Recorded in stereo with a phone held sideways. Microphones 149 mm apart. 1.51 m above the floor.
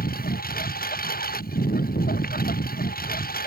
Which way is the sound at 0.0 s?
90° left.